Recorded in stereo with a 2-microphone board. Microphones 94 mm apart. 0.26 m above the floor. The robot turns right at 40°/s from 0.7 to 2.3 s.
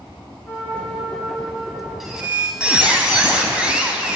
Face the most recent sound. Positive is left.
turn(degrees=-10)  # may be behind; listen again after turning